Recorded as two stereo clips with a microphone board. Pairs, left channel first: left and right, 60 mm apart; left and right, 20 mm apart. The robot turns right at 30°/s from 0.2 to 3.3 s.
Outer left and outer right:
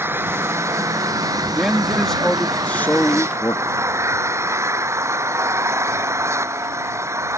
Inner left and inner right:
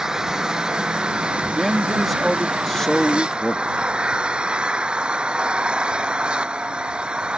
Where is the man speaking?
10° right; by 3.9 s 40° left.